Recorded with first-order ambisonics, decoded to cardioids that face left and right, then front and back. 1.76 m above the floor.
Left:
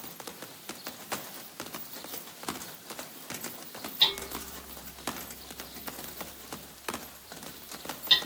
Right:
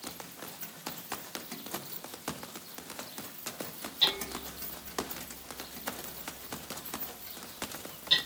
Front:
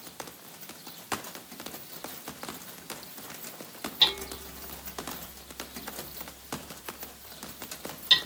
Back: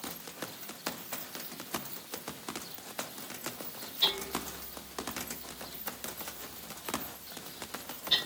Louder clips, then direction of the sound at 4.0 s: Left 2 dB, front 5 dB; 25° left.